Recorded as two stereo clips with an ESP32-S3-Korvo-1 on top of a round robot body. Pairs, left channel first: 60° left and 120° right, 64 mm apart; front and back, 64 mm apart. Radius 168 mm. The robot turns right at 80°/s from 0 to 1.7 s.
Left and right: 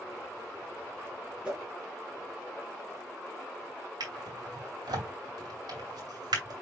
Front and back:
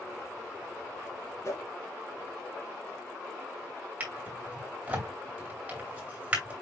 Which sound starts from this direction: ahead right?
A whoosh, at 1.4 s.